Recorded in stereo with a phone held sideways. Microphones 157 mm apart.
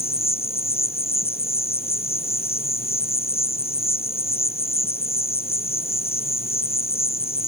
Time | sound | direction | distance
0.0 | an insect | 40° left (ahead or behind) | ?